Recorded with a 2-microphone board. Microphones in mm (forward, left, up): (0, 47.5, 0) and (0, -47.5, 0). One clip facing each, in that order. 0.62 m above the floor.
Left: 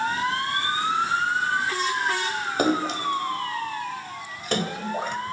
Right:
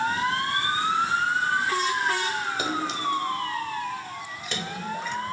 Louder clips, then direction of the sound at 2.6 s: Left 9 dB; 55° left (ahead or behind).